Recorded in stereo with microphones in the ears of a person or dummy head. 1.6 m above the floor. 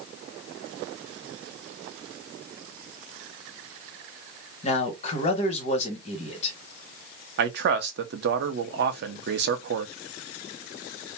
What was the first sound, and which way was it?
A man speaking, 30° left (ahead or behind).